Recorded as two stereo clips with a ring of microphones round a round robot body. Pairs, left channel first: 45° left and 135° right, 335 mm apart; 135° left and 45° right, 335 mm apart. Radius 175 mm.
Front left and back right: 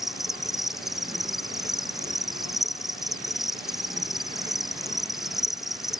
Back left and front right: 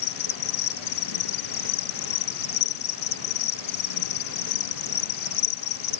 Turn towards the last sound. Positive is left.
turn(degrees=135)